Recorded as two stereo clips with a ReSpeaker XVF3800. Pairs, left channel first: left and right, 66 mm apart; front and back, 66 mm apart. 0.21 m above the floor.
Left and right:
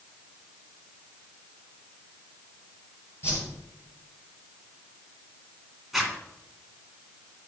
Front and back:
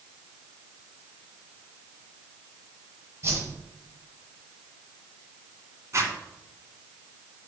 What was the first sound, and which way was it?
A whoosh, 135° left.